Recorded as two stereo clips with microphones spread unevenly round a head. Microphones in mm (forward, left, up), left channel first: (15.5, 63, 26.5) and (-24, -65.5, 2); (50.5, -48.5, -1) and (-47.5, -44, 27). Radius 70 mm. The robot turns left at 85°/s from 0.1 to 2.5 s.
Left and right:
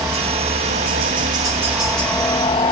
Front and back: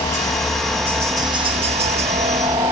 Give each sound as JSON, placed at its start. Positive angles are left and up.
{"t": 0.0, "sound": "a helicopter", "azimuth_deg": -35}